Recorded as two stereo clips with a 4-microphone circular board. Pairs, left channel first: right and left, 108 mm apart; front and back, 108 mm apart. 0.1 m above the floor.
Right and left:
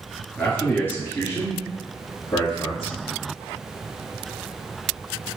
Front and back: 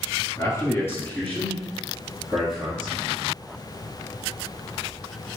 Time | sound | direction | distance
0.4 | a man speaking | 15° right | 1.3 m